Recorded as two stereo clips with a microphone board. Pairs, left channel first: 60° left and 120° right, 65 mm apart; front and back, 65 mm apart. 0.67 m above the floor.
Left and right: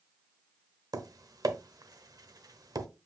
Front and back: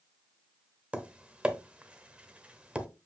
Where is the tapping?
110° right, 0.8 m.